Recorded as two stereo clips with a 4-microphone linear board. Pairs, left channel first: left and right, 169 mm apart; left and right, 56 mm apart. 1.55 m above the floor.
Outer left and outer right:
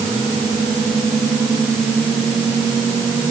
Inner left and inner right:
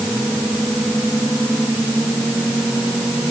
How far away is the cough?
No cough in this recording.